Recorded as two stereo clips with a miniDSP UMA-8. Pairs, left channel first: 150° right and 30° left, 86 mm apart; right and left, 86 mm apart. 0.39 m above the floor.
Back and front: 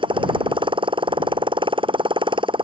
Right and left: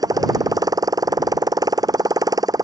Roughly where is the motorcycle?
Ahead left.